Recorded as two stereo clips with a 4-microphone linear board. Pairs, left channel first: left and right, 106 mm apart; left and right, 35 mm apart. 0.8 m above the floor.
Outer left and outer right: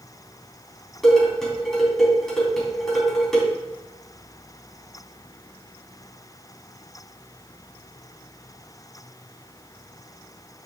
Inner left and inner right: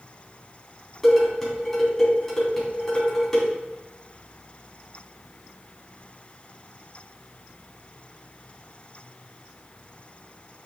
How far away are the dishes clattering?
About 4 m.